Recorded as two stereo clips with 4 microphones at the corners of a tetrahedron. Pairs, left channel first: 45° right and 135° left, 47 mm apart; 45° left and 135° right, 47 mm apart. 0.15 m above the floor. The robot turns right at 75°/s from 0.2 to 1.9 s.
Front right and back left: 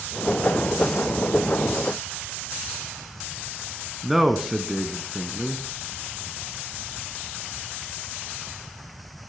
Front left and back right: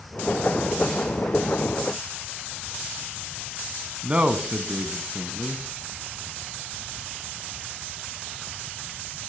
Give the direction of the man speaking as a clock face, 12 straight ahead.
5 o'clock.